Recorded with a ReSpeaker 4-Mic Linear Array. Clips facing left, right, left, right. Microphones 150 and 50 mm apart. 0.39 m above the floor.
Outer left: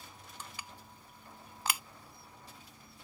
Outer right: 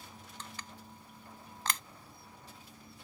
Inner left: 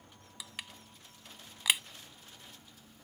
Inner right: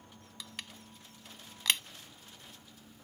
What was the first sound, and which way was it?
Crushing, 10° left (ahead or behind).